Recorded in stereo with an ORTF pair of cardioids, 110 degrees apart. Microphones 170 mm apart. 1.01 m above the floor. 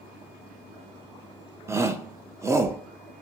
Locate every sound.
1.7 s a shout: 15° right, 0.7 m